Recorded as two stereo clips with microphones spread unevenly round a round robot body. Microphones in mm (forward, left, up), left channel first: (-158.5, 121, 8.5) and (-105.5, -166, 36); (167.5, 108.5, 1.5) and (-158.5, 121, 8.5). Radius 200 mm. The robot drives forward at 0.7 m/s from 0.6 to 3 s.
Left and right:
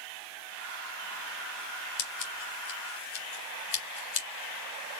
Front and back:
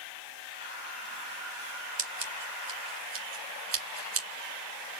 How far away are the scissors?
About 2.5 m.